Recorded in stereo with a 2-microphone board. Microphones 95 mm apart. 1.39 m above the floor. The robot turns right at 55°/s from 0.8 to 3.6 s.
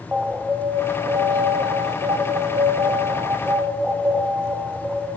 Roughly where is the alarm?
Behind.